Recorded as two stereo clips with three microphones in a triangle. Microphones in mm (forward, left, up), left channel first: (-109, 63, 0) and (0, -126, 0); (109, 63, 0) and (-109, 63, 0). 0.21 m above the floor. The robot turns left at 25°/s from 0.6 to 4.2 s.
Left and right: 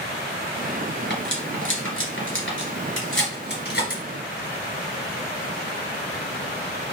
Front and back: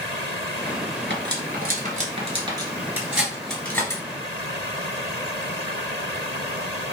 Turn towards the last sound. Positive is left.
turn(degrees=70)